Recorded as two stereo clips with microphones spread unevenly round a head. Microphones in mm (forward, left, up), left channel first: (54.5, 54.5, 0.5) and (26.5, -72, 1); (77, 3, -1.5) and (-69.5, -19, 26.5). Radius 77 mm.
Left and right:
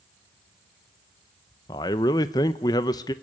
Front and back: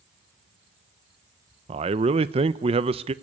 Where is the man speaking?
135° left, 0.6 m.